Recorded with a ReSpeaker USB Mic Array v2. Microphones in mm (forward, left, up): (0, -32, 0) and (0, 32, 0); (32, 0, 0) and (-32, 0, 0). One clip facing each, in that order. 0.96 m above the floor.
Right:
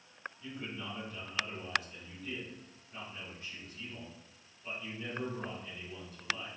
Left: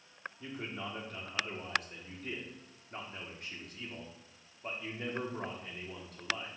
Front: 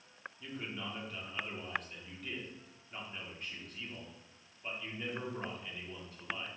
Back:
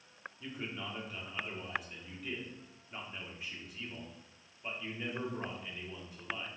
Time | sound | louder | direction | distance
0.4 | a man speaking | left 2 dB, back 1 dB | 100° left | 1.9 m